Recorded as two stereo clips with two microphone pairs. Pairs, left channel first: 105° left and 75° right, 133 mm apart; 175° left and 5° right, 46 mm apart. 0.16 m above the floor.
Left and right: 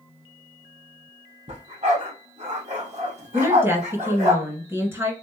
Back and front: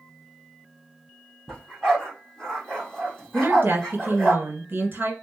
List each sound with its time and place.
1.5 s a dog barking: 105° right, 2.5 m
3.3 s a woman speaking: 10° right, 1.4 m